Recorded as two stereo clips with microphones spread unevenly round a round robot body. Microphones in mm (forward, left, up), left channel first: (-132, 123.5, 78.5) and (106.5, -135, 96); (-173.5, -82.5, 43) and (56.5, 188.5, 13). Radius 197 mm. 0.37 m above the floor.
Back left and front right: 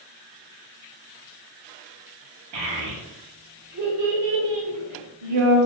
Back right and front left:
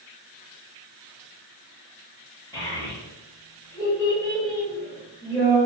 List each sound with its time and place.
2.5 s a child speaking: 45° right, 0.9 m